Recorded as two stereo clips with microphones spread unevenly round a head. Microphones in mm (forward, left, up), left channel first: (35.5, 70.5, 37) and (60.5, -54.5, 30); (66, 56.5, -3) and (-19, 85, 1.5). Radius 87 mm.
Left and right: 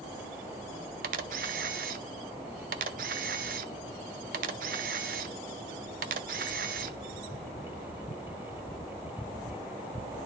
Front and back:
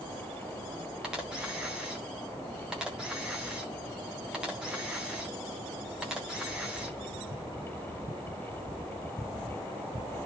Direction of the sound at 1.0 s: 110° right.